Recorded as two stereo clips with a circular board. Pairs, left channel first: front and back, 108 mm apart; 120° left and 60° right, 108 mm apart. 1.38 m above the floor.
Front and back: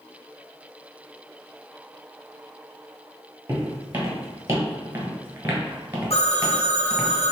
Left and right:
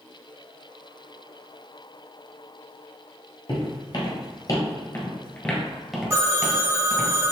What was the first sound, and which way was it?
Footsteps, 125° left.